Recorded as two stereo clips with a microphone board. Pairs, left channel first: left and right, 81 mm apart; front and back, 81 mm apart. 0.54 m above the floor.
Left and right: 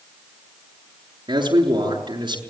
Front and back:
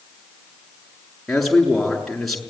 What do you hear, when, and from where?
1.3 s a man speaking: 85° right, 6.5 m